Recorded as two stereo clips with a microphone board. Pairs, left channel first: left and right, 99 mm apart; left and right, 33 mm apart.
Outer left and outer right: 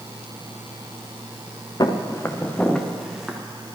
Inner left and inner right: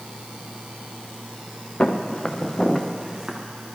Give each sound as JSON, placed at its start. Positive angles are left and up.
{"t": 1.8, "sound": "footsteps", "side_deg": 45, "distance_m": 1.3}